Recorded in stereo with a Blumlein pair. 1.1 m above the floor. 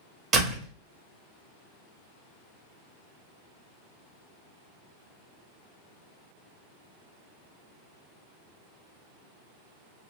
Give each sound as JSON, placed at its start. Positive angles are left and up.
{"t": 0.3, "sound": "a door slam", "azimuth_deg": -30, "distance_m": 1.3}